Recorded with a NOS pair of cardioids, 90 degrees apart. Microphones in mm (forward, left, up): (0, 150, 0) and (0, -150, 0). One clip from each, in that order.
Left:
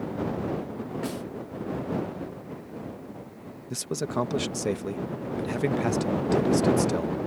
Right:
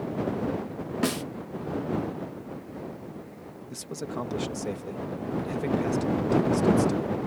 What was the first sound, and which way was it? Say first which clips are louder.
A snare drum: right 8 dB; 55° right.